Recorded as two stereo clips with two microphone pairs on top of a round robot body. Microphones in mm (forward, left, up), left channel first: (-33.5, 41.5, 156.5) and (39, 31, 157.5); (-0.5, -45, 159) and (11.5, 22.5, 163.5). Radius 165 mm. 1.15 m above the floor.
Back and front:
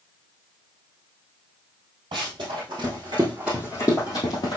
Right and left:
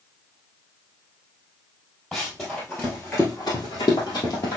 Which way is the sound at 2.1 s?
5° right.